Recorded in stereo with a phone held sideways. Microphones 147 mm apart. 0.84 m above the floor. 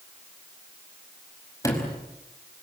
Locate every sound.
1.6 s a sliding door: 20° left (ahead or behind), 5 m